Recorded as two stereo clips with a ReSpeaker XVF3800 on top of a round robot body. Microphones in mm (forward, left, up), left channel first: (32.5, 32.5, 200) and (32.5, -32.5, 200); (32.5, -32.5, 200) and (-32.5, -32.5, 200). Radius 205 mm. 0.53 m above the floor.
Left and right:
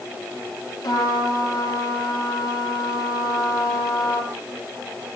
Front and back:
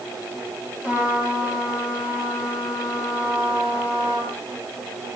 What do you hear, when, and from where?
0.8 s a trumpet: 115° left, 5.5 m